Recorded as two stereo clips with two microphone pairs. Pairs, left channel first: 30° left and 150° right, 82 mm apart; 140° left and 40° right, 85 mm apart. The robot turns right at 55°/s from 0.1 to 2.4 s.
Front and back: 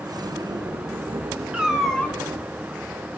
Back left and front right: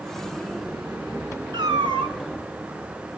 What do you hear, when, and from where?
1.5 s a cat meowing: 70° right, 1.8 m; by 2.2 s 35° right, 1.8 m